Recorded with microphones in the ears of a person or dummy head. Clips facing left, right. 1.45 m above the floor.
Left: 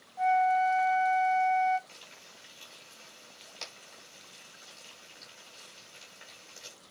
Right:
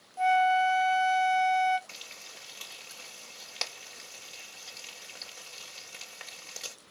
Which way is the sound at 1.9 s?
85° right.